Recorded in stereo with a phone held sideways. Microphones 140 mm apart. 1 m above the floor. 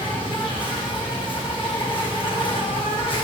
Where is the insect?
35° left (ahead or behind), 1.6 m.